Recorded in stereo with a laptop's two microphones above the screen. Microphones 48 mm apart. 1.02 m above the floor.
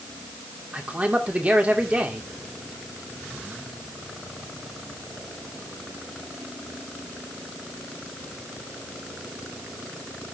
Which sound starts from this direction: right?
A man speaking, at 0.7 s.